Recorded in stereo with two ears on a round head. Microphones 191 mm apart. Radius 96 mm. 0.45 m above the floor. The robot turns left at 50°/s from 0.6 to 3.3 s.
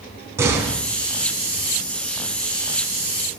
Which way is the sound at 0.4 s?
15° right (ahead or behind).